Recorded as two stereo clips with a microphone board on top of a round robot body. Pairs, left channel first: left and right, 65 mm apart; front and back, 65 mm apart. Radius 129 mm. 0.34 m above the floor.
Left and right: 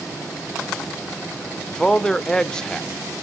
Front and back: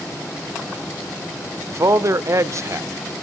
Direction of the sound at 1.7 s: 170° left.